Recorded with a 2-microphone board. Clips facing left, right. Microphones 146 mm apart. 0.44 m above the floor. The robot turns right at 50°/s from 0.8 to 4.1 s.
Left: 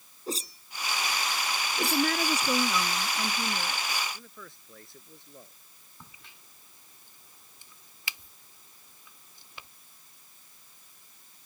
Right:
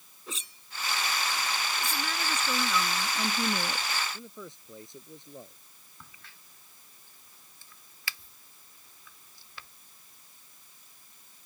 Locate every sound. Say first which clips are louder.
0.3 s a whoosh: left 9 dB; 40° left (ahead or behind); by 2.7 s 45° left (ahead or behind)
1.8 s a woman speaking: left 7 dB; 115° left; by 3.9 s 140° right
4.1 s a man speaking: right 5 dB; 20° right (ahead or behind)
6.0 s a crack: left 1 dB; 20° left (ahead or behind)